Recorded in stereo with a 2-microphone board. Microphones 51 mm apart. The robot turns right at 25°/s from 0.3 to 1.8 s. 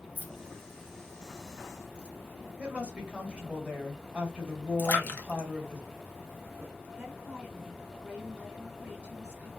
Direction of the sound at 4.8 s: 40° left (ahead or behind).